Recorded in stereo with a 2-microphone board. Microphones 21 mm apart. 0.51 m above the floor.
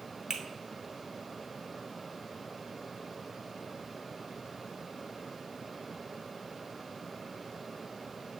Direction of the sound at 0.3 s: 35° right (ahead or behind).